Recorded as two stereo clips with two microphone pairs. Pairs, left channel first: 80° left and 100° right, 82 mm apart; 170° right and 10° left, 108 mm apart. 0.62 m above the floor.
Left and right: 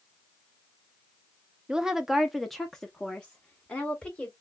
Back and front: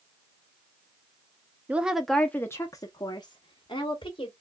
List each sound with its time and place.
1.7 s a woman speaking: 30° right, 0.6 m; by 4.3 s 155° left, 1.3 m